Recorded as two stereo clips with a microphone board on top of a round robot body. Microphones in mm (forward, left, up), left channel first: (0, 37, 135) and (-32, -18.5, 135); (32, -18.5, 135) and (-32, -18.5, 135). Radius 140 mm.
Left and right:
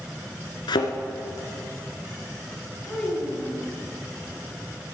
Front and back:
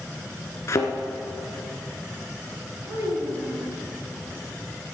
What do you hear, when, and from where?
0.7 s a thud: 50° left, 1.3 m
2.9 s a child speaking: 130° left, 6 m